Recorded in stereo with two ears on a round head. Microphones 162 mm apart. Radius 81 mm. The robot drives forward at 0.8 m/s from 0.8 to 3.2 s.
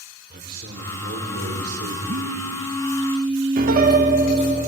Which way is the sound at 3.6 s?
45° right (ahead or behind).